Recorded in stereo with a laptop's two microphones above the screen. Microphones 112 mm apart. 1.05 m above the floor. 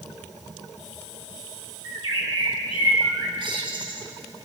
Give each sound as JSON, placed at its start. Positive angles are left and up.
{"t": 1.8, "sound": "a bird", "side_deg": -45, "distance_m": 8.0}